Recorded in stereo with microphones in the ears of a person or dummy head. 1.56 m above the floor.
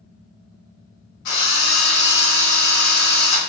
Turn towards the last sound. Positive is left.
turn(degrees=55)  # may be behind; listen again after turning